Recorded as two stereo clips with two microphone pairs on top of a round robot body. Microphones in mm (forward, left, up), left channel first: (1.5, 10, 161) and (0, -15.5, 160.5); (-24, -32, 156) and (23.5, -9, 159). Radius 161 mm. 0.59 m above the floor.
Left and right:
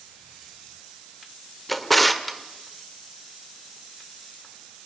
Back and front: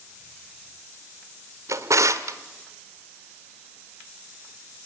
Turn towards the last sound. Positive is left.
turn(degrees=0)